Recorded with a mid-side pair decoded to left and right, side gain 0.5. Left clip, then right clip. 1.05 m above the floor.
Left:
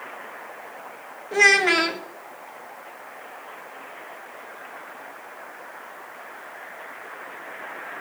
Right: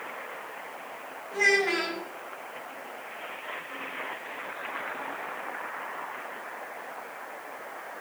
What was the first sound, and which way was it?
A child speaking, 60° left.